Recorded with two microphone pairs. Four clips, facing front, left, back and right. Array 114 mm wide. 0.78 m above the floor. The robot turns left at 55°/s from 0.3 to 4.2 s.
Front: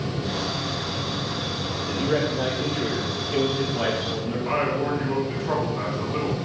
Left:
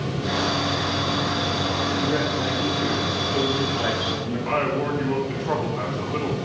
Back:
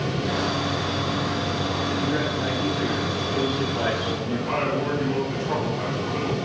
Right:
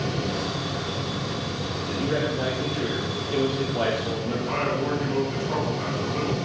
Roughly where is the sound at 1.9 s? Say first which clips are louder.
Right 1 dB, front 5 dB; ahead.